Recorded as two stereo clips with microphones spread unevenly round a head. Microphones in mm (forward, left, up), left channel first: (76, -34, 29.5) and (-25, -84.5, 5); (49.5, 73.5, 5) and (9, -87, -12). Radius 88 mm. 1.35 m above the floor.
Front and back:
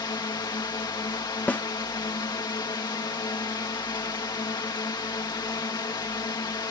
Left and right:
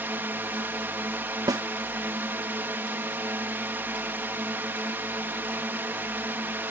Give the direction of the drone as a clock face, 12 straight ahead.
1 o'clock.